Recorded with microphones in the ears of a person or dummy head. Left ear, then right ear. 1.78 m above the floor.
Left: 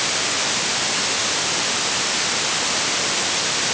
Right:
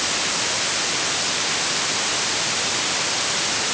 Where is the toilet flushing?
No toilet flushing in this recording.